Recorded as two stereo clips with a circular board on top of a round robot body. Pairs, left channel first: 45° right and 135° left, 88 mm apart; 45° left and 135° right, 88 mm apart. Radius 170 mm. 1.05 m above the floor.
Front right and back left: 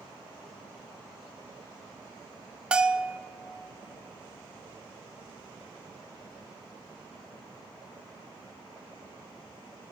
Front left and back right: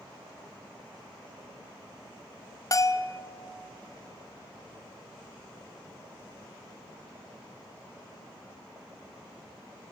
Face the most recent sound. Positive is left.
turn(degrees=60)